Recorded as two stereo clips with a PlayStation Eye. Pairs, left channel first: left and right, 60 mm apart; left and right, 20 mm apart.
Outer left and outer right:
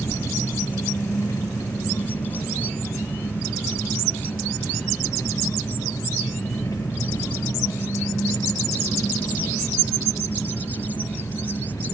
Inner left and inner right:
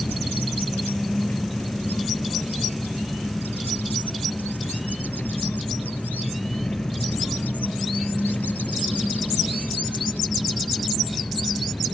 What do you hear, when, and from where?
0.0 s an engine running: 65° left (ahead or behind)